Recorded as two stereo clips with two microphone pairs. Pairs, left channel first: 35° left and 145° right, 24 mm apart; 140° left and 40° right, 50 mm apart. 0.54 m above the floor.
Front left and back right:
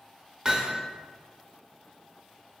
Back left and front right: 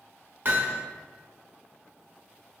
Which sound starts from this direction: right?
Hammering, at 0.5 s.